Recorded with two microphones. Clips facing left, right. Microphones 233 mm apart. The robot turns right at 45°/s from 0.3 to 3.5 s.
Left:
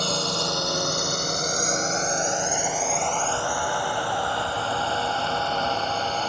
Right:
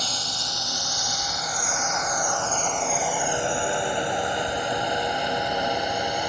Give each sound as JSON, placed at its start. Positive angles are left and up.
{"t": 0.0, "sound": "a drone", "side_deg": 60}